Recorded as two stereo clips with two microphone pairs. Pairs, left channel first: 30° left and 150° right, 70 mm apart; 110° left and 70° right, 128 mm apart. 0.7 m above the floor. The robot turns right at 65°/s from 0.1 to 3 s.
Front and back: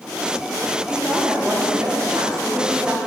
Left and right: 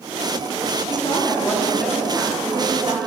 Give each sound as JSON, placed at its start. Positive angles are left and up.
{"t": 0.9, "sound": "a woman speaking", "azimuth_deg": 140, "distance_m": 1.6}